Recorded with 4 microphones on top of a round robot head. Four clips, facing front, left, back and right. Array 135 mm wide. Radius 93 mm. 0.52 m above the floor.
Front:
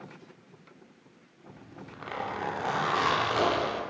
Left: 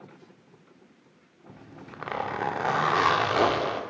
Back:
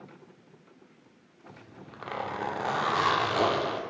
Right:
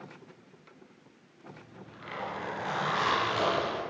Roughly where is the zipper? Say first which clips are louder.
Left 4 dB, front 2 dB; left.